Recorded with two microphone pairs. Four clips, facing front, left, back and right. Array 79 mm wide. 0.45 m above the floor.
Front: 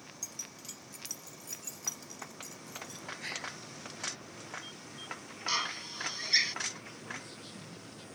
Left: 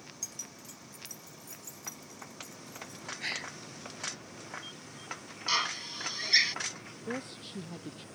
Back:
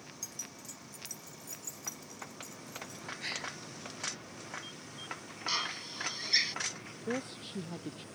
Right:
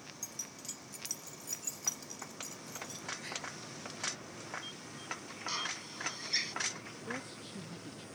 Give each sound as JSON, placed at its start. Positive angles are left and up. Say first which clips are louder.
{"t": 0.2, "sound": "keys jangling", "louder": "even, even", "azimuth_deg": 90}
{"t": 3.2, "sound": "a gasp", "louder": "left 4 dB, back 1 dB", "azimuth_deg": 80}
{"t": 5.5, "sound": "a drill", "louder": "left 9 dB, front 2 dB", "azimuth_deg": 70}
{"t": 7.1, "sound": "a woman speaking", "louder": "left 5 dB, back 11 dB", "azimuth_deg": 160}